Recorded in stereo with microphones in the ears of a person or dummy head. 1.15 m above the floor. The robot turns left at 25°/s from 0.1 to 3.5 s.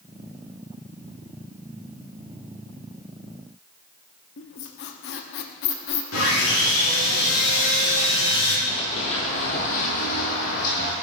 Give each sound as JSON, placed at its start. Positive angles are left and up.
{"t": 4.4, "sound": "a squeak", "side_deg": 65, "distance_m": 1.0}
{"t": 6.1, "sound": "sawing", "side_deg": 80, "distance_m": 3.0}
{"t": 8.7, "sound": "running footsteps", "side_deg": 35, "distance_m": 1.4}